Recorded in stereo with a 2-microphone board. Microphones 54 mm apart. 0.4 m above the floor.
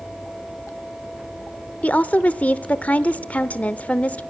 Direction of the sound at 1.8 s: 25° left (ahead or behind).